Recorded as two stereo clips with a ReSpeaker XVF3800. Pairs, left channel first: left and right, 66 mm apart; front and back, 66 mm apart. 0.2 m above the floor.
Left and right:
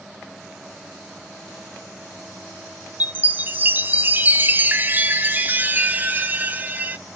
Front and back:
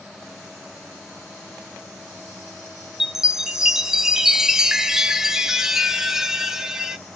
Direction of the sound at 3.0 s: 110° right.